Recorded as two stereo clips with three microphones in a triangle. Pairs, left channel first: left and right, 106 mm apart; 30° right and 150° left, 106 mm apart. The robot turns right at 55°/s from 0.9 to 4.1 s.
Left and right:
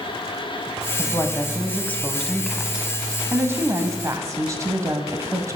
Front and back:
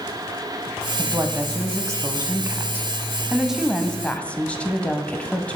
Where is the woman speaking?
95° left, 1.1 m; by 5.6 s 95° right, 1.1 m.